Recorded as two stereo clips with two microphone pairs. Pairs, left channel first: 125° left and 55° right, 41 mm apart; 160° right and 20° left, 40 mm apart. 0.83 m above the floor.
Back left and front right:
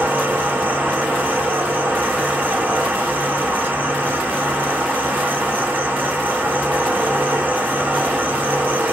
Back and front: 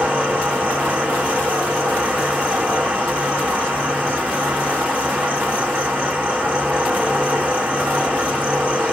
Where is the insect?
30° right, 1.8 m.